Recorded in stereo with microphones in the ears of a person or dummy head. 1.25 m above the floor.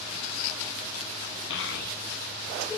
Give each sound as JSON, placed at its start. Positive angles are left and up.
{"t": 1.5, "sound": "a child speaking", "side_deg": 75, "distance_m": 0.5}